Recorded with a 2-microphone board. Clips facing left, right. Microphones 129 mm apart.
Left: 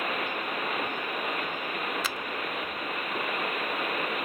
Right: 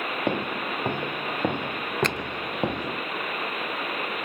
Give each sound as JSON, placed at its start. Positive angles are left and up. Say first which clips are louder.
{"t": 0.3, "sound": "footsteps", "louder": "right 5 dB", "side_deg": -65}
{"t": 2.0, "sound": "a finger snap", "louder": "right 6 dB", "side_deg": 5}